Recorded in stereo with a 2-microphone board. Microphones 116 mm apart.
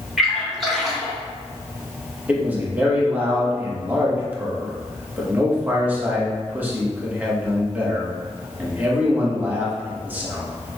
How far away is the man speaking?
About 1.2 m.